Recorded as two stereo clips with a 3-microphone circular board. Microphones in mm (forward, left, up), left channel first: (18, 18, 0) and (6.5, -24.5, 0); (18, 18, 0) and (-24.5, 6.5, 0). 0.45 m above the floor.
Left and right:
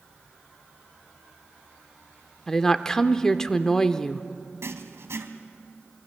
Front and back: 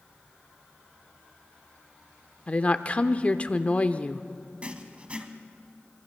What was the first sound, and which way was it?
A woman speaking, 15° left.